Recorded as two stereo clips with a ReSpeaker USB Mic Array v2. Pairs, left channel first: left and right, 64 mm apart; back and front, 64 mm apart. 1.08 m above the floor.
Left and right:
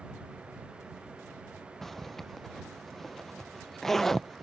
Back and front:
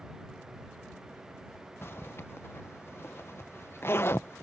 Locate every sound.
1.8 s a zipper: 170° left